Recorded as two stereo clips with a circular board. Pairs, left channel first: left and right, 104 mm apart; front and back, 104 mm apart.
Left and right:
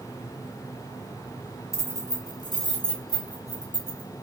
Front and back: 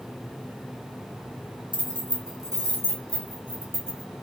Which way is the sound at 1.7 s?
145° left.